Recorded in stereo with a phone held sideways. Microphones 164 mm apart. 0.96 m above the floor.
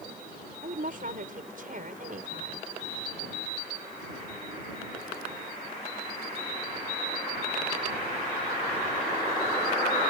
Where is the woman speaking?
60° right (ahead or behind).